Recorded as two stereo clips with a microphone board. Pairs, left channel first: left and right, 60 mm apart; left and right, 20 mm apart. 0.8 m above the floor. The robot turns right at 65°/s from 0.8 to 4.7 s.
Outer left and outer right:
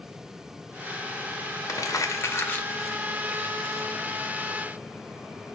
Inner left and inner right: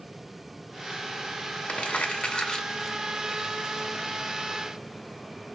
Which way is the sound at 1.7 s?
80° left.